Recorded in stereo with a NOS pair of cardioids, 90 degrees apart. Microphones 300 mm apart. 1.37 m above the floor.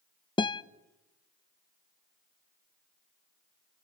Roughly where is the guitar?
Ahead.